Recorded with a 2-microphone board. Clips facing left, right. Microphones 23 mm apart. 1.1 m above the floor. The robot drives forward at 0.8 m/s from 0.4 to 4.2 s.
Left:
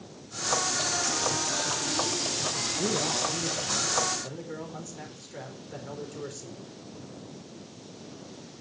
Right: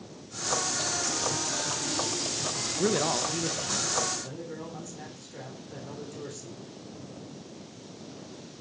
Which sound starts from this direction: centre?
A man speaking, at 4.2 s.